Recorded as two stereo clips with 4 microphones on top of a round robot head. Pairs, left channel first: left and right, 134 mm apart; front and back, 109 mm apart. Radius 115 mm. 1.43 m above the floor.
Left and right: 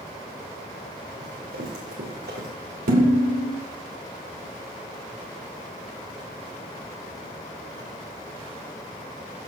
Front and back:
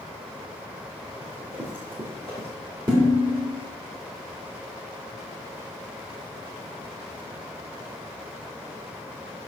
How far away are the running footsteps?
About 4 m.